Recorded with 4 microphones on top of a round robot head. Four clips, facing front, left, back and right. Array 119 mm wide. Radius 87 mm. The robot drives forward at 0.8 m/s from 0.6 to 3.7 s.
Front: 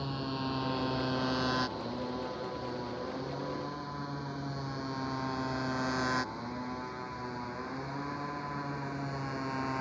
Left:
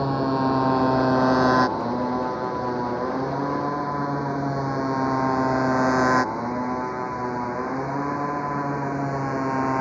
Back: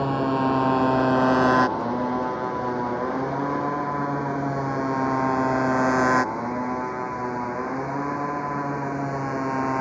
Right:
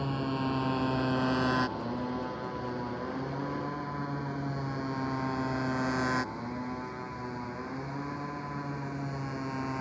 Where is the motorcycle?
140° left; by 9.8 s 130° left.